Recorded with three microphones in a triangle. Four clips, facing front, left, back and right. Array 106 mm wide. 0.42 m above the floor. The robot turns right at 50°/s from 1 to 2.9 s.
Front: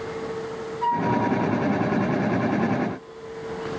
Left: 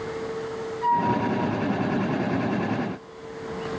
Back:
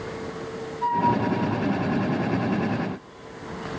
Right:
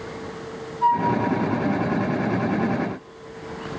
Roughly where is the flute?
Right.